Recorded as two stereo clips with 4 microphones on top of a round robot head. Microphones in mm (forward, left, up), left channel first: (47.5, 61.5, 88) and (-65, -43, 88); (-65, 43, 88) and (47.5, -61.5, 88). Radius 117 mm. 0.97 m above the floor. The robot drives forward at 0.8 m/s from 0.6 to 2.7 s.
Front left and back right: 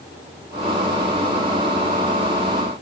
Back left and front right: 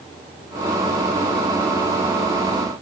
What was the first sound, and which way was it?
Only background noise.